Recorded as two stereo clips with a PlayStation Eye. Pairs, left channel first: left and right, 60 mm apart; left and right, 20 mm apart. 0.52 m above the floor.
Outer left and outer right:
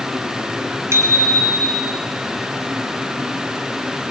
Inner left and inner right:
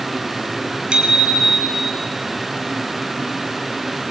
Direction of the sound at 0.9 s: 50° right (ahead or behind).